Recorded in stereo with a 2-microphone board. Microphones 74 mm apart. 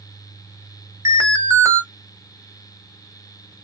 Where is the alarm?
40° right (ahead or behind), 0.9 m.